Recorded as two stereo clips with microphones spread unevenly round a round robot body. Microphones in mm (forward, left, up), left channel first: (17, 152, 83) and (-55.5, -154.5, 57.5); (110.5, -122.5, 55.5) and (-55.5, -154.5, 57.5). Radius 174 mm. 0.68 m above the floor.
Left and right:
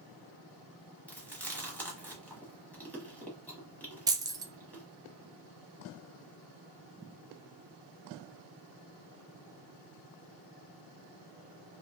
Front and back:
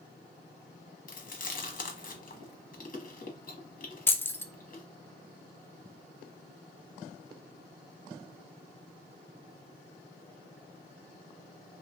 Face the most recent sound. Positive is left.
turn(degrees=-50)